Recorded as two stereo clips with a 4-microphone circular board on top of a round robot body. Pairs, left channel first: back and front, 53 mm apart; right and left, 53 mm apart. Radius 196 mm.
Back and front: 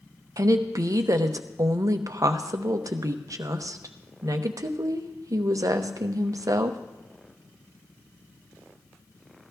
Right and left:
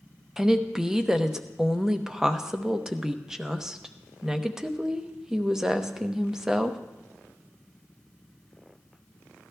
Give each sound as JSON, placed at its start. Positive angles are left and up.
{"t": 0.4, "sound": "a woman speaking", "azimuth_deg": 10, "distance_m": 0.9}